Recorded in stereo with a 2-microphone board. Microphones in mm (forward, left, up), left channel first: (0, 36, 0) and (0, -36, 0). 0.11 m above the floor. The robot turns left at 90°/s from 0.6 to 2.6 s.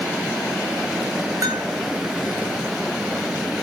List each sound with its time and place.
1.4 s a bell: 50° right (ahead or behind), 1.8 m; by 1.7 s 25° right (ahead or behind), 1.8 m